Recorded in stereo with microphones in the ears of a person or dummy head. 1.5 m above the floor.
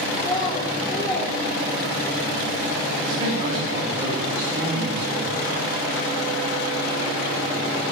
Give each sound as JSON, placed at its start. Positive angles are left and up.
{"t": 0.1, "sound": "a child speaking", "side_deg": 30, "distance_m": 4.0}
{"t": 3.0, "sound": "a man speaking", "side_deg": -40, "distance_m": 3.5}